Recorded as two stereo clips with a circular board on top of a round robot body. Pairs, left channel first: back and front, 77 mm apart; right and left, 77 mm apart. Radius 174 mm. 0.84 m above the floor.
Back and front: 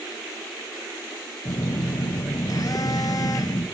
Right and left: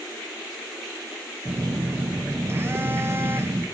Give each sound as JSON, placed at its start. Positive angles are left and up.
{"t": 1.4, "sound": "a phone buzzing", "azimuth_deg": 145, "distance_m": 0.8}